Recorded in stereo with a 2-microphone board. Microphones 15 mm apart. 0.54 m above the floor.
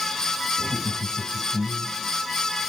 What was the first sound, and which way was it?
Laughter, 70° left (ahead or behind).